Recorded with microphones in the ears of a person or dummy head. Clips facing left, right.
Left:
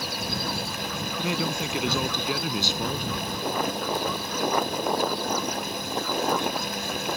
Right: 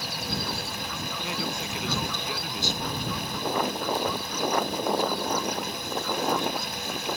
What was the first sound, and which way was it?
A man speaking, 65° left (ahead or behind).